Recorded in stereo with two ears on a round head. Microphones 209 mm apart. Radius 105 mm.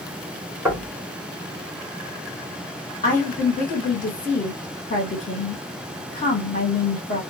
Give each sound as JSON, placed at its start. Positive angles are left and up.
{"t": 0.7, "sound": "knocking", "side_deg": -5, "distance_m": 1.2}
{"t": 3.0, "sound": "a woman speaking", "side_deg": 35, "distance_m": 1.8}